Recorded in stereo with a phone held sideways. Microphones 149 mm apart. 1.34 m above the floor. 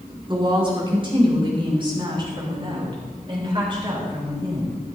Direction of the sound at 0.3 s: 35° right (ahead or behind).